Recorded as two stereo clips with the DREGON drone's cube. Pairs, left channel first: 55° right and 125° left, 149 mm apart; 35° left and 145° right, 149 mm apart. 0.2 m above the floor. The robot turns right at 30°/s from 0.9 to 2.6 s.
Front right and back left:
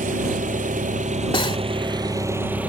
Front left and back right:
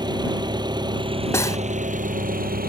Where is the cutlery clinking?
25° right; by 1.6 s 20° right.